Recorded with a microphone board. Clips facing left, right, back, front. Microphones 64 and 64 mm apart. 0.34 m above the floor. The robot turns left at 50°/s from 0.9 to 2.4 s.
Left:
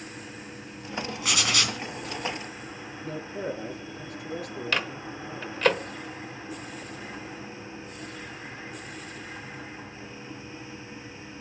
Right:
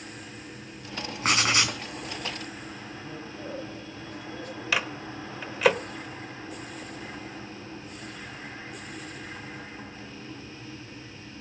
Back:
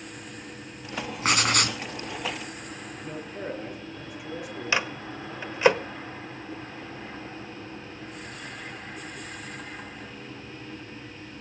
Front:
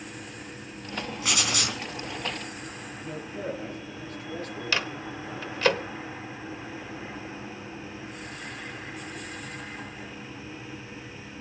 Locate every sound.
1.2 s writing: 135° right, 3.5 m; by 1.8 s 165° right, 3.5 m
3.0 s a man speaking: 100° left, 7.5 m
4.7 s a microwave: 165° right, 1.1 m